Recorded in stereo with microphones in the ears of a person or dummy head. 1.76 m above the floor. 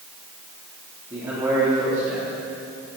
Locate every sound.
1.1 s a man speaking: 20° right (ahead or behind), 3.5 m